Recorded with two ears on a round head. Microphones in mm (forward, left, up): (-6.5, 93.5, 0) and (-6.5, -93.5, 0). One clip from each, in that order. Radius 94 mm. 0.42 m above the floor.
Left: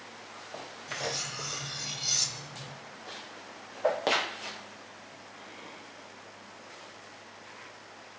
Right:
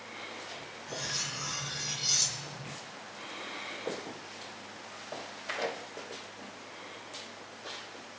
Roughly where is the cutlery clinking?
Centre.